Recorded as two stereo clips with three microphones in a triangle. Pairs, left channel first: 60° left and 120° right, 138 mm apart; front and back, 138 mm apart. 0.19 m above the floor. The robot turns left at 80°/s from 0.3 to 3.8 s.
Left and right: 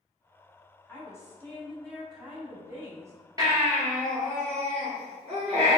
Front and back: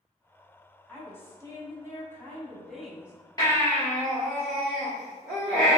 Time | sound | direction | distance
0.9 | a woman speaking | 60° left | 1.0 m
3.4 | a baby crying | 60° right | 1.6 m